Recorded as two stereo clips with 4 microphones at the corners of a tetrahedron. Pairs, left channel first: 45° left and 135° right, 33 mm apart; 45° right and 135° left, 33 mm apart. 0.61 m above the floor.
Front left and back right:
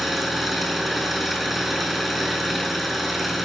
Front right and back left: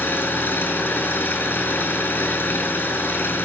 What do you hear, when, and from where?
0.0 s an engine running: 50° right, 6.5 m